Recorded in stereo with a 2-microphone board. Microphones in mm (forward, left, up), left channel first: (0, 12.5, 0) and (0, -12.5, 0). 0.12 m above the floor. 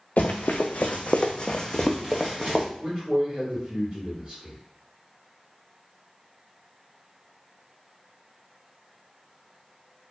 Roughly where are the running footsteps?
Left.